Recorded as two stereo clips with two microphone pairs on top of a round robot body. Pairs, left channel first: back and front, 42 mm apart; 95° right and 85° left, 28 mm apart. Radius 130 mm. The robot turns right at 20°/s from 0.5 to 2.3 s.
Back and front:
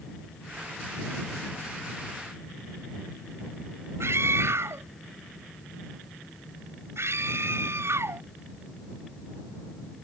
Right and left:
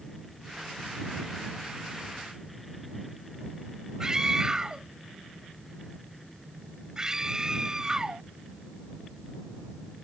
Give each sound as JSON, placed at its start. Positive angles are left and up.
{"t": 4.0, "sound": "a scream", "azimuth_deg": 15}